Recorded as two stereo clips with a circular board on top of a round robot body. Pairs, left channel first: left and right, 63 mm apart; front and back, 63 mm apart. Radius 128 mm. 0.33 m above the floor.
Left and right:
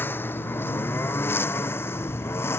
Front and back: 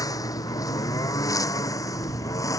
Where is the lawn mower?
30° left; by 2.6 s 35° left.